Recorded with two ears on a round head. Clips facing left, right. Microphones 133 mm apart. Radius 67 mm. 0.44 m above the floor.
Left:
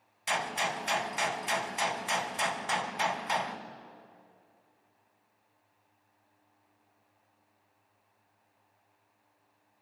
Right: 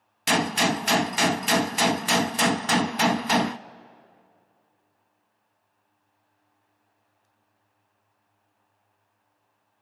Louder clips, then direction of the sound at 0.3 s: Right 9 dB; 70° right (ahead or behind).